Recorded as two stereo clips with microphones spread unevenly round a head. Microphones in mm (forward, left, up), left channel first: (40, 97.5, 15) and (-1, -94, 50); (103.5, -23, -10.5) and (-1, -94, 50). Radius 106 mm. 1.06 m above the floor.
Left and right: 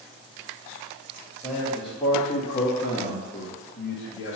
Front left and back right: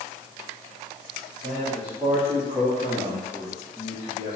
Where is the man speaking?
150° left, 2.0 m; by 4.3 s 100° left, 1.6 m.